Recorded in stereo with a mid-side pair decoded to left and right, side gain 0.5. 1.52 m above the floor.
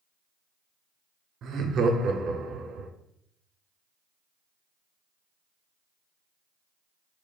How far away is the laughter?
About 0.7 m.